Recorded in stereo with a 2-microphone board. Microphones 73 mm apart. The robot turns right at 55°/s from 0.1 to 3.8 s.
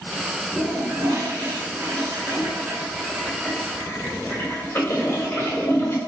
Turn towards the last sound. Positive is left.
turn(degrees=40)  # may be behind; listen again after turning